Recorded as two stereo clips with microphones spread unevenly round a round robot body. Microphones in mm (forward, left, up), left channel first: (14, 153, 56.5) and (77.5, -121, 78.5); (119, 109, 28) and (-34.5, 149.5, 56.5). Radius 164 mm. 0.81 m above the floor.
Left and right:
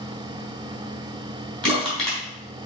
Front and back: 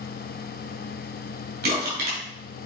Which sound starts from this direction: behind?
Crushing, at 1.6 s.